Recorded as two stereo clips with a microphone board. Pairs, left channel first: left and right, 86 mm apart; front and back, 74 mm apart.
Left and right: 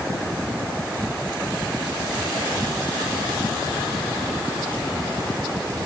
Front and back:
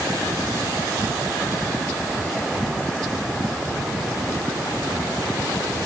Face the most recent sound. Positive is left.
No sound to turn to.